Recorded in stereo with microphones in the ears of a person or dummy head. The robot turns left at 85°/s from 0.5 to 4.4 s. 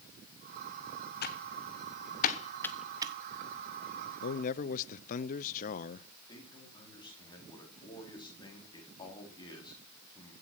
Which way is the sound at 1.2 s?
50° left (ahead or behind).